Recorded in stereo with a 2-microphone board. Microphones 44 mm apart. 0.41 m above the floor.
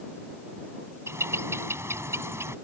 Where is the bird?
70° right (ahead or behind).